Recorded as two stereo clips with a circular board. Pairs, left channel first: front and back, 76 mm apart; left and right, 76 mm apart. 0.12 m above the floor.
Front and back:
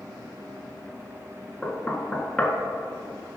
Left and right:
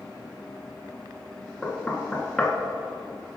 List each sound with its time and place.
1.6 s knocking: 40° left, 0.7 m